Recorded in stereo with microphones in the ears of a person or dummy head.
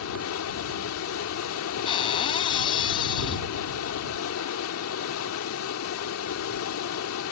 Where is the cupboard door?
25° left (ahead or behind).